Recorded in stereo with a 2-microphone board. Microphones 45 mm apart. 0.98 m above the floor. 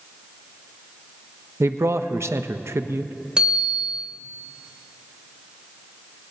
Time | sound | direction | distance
1.6 | a man speaking | 65° right (ahead or behind) | 0.7 m
3.4 | a bicycle bell | 15° right (ahead or behind) | 3 m